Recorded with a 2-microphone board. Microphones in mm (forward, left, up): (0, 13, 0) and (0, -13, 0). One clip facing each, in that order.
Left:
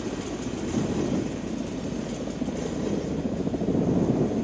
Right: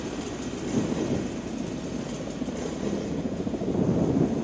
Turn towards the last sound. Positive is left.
turn(degrees=5)  # may be behind; listen again after turning